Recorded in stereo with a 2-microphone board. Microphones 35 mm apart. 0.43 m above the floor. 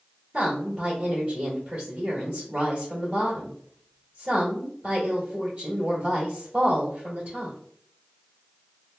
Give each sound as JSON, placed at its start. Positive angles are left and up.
{"t": 0.3, "sound": "a woman speaking", "side_deg": -35, "distance_m": 1.8}